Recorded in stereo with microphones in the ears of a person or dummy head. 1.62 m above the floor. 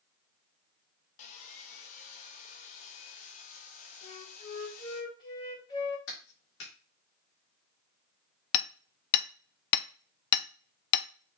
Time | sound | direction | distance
1.2 | sawing | 45° left (ahead or behind) | 1.0 m
4.0 | a flute | 30° left (ahead or behind) | 2.5 m
6.1 | a clap | 80° left | 3 m
8.5 | hammering | 55° left (ahead or behind) | 0.6 m